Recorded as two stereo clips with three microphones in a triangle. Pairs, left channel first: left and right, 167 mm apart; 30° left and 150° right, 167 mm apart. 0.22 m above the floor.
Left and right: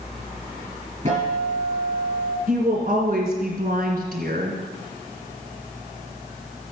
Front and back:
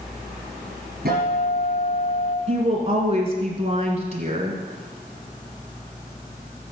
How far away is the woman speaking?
About 2.5 m.